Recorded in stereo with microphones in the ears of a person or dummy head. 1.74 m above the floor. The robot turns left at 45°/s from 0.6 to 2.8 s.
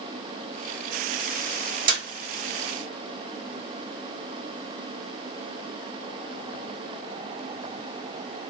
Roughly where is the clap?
Right.